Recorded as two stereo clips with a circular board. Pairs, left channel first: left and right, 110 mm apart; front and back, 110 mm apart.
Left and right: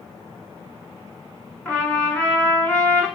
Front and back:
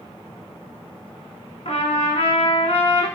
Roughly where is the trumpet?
Ahead.